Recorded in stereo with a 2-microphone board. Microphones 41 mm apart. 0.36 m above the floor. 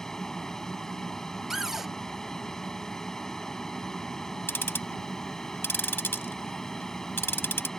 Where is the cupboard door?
10° right (ahead or behind).